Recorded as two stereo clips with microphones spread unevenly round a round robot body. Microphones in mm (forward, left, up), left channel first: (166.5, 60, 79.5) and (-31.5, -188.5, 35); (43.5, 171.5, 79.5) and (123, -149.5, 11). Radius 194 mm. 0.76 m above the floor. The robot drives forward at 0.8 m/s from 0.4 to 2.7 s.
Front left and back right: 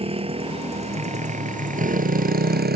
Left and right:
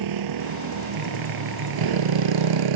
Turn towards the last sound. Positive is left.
turn(degrees=-65)